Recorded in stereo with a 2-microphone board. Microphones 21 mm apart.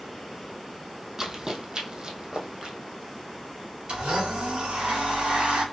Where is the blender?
75° right (ahead or behind), 2.5 m.